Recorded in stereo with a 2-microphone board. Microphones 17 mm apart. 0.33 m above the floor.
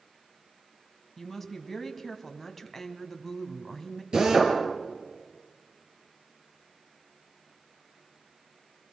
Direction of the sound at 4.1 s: 45° right (ahead or behind).